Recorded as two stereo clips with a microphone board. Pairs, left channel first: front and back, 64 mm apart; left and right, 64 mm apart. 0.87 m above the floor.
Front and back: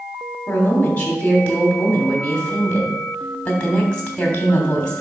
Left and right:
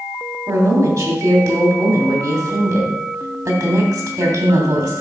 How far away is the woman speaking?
About 3 m.